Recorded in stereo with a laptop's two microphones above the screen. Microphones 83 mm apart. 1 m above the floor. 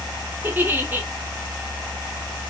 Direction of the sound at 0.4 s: 25° right (ahead or behind).